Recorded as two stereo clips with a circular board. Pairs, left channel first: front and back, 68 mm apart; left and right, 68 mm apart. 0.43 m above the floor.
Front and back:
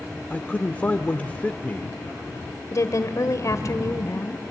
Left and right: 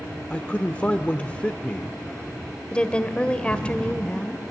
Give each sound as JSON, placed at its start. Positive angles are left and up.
{"t": 0.3, "sound": "a man speaking", "azimuth_deg": 40, "distance_m": 0.8}
{"t": 2.7, "sound": "a woman speaking", "azimuth_deg": 20, "distance_m": 1.4}